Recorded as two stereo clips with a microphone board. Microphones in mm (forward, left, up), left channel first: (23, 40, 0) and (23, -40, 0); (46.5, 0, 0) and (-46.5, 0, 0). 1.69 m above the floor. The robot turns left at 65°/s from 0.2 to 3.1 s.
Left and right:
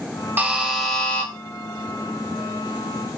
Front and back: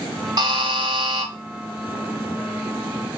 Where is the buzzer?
150° right, 0.8 m; by 1.3 s 150° left, 0.8 m.